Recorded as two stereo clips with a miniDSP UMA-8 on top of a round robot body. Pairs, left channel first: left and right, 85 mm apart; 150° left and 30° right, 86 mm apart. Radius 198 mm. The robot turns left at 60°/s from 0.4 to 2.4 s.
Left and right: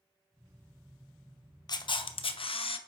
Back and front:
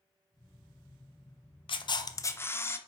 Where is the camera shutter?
130° left, 0.7 m; by 2.8 s 85° left, 0.7 m.